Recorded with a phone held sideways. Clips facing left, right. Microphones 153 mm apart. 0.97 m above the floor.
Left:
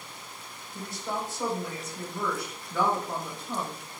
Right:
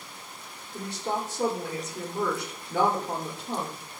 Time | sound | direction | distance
0.7 | a woman speaking | 70° right (ahead or behind) | 3 m